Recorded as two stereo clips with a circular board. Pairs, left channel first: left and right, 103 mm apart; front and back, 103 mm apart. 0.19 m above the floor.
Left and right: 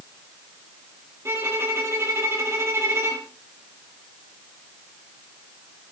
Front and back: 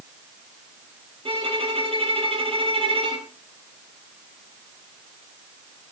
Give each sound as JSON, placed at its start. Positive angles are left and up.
{"t": 1.2, "sound": "a violin", "azimuth_deg": -155, "distance_m": 2.0}